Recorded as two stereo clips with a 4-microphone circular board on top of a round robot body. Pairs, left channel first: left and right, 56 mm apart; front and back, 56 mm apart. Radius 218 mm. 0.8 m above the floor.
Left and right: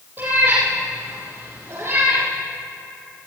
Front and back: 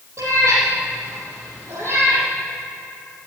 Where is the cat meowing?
150° right, 4.5 m; by 2.3 s 140° right, 5.5 m.